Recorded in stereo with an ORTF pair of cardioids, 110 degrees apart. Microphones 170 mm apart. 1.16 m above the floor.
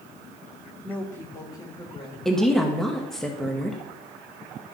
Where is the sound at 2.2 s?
5° left, 1.3 m.